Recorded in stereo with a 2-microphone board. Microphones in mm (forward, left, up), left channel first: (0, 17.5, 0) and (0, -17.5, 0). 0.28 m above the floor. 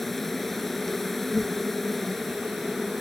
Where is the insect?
5° left (ahead or behind).